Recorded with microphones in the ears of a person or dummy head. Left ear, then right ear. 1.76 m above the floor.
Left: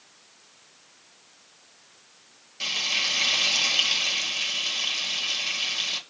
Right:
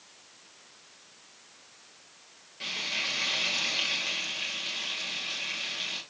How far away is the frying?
About 2 m.